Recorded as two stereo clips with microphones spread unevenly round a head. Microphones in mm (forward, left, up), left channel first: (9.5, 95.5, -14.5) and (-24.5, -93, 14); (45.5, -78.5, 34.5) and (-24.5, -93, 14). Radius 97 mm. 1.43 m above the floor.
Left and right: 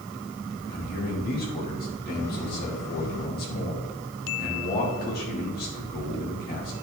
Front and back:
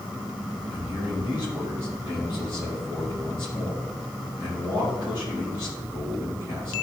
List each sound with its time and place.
0.7 s a man speaking: 120° left, 3 m